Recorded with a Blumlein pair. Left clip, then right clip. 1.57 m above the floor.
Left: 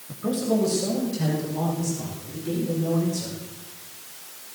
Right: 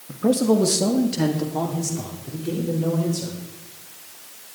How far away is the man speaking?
About 2 m.